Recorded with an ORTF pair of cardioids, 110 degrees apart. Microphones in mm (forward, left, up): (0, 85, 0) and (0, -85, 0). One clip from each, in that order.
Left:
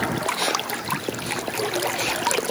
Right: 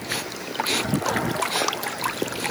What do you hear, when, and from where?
Only background noise.